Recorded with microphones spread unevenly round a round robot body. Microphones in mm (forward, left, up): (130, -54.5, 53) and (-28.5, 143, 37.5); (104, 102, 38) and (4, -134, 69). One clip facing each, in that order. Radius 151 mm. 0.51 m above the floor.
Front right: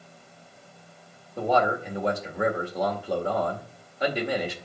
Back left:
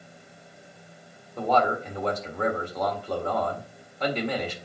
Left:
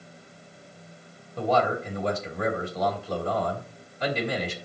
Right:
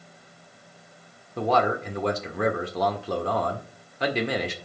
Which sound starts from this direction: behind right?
A man speaking, at 1.4 s.